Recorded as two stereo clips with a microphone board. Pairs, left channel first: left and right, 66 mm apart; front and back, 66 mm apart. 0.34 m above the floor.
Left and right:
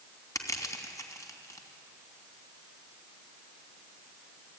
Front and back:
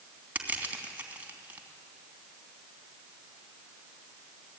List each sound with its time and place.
0.3 s crushing: 115° left, 3 m